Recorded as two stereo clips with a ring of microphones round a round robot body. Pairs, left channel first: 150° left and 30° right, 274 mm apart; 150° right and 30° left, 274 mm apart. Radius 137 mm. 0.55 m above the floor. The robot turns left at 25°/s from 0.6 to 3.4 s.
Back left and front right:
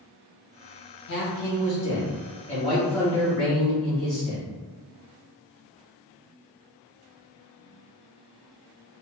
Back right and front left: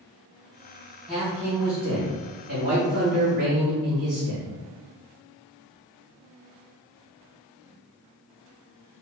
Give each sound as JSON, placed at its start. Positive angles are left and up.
{"t": 1.1, "sound": "a man speaking", "azimuth_deg": 120, "distance_m": 1.9}